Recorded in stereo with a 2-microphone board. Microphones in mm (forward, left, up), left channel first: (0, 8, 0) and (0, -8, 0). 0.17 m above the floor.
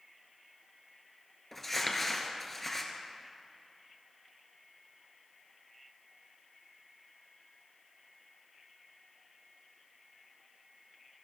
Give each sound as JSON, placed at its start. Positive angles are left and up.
{"t": 1.5, "sound": "crumpling", "side_deg": 15, "distance_m": 2.0}